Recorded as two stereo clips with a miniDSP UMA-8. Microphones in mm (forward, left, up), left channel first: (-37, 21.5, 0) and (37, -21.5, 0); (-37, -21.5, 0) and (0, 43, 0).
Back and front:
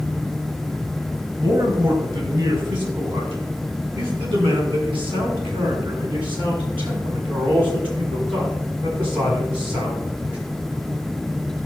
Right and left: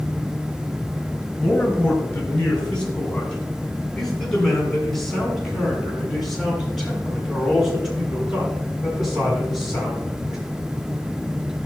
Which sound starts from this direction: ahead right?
A man speaking, at 1.4 s.